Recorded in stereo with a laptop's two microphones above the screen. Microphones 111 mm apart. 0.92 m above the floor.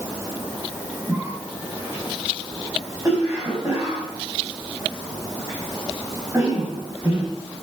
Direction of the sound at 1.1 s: 30° right (ahead or behind).